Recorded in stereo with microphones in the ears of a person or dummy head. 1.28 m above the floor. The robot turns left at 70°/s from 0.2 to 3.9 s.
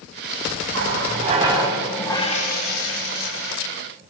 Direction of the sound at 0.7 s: 105° right.